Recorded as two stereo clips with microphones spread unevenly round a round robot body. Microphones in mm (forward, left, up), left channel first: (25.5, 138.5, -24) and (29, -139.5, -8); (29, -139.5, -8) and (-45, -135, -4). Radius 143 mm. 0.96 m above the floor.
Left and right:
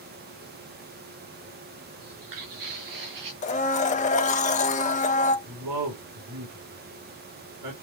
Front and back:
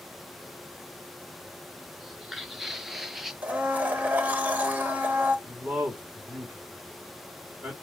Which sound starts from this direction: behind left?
A blender, at 3.4 s.